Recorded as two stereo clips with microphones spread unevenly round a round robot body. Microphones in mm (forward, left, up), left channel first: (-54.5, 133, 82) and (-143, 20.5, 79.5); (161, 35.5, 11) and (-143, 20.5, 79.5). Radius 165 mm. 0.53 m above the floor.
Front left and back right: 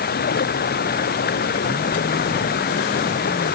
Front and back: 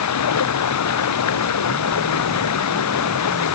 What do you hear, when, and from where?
0.0 s running water: 35° left